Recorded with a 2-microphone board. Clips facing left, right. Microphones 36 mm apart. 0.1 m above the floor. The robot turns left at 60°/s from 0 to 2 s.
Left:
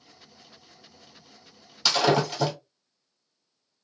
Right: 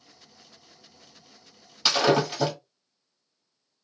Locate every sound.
1.9 s breaking glass: 15° right (ahead or behind), 1.5 m; by 2.5 s 5° right (ahead or behind), 1.5 m